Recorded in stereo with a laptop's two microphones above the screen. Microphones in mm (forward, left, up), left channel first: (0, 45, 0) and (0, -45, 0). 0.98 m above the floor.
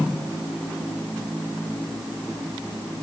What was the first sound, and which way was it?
Only background noise.